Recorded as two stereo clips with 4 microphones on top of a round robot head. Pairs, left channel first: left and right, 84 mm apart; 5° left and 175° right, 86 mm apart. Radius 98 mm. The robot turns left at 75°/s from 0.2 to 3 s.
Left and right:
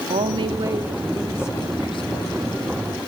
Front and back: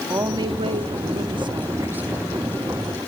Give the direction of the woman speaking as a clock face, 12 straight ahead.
4 o'clock.